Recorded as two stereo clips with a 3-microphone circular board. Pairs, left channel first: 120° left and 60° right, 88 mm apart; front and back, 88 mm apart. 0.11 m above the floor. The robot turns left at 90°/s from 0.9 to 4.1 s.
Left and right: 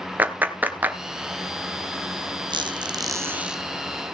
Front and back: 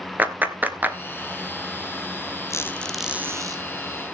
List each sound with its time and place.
0.2 s a clap: 120° right, 1.2 m; by 1.0 s 125° right, 1.2 m
2.5 s a squeak: 50° right, 1.2 m; by 3.6 s 150° right, 1.2 m